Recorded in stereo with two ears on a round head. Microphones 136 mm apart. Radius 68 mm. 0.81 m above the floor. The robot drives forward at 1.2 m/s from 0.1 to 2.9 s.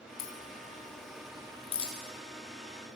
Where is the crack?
65° left (ahead or behind), 2.5 m; by 1.9 s 35° left (ahead or behind), 4 m.